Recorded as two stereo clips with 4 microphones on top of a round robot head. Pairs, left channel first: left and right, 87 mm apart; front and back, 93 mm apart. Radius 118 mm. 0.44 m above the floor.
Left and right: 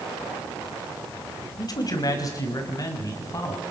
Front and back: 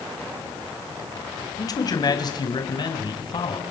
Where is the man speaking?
45° left, 4 m; by 3.6 s 35° left, 5.5 m.